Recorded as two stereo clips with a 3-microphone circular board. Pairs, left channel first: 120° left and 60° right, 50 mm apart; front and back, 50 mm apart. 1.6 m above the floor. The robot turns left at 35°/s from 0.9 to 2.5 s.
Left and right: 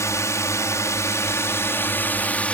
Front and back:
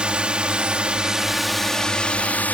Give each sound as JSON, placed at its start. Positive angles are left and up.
{"t": 0.0, "sound": "a drone", "azimuth_deg": 115}